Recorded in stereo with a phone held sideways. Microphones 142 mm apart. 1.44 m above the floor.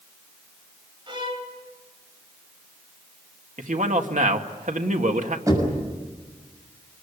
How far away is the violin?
About 3 m.